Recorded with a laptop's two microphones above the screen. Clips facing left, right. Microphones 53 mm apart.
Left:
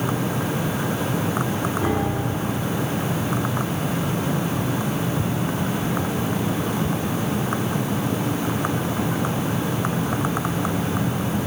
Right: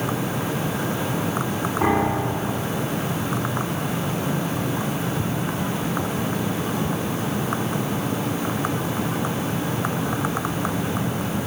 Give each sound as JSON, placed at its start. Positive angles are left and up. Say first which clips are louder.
{"t": 1.8, "sound": "a piano", "louder": "right 3 dB", "side_deg": -65, "distance_m": 5.0}